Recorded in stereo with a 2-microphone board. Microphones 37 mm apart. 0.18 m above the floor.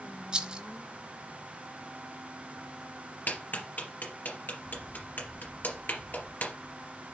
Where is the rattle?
30° right (ahead or behind), 1.3 m.